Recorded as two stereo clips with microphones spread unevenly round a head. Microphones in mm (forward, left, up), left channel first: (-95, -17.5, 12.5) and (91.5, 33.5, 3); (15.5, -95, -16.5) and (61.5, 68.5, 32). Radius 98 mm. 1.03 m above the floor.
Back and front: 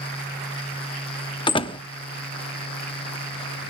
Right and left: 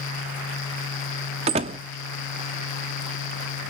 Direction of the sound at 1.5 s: 130° left.